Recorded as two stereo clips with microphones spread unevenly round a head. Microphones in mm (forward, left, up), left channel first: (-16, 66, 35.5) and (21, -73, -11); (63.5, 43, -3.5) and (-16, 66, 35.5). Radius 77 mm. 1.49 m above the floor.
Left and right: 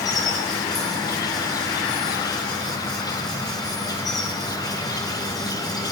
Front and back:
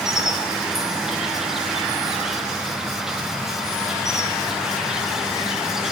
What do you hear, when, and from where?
0.0 s an insect: 30° left, 0.9 m